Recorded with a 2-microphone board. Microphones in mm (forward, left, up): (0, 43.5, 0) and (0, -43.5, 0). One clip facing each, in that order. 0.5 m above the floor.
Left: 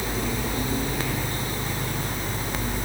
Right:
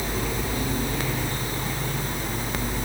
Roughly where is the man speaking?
I don't hear a man speaking.